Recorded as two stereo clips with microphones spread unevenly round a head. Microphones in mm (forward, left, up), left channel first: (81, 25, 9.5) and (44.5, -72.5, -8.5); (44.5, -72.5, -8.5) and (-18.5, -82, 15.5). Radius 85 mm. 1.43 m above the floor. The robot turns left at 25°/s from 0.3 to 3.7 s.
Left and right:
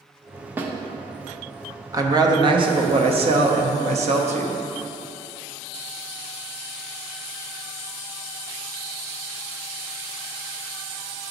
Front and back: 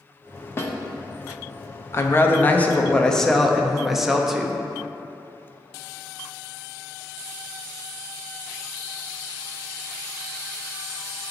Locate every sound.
0.6 s a snare drum: 45° right, 0.7 m
1.9 s a woman speaking: 50° right, 0.8 m; by 4.6 s 95° right, 0.8 m